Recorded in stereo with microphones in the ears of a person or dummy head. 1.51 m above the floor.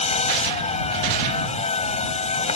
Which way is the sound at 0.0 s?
35° left (ahead or behind).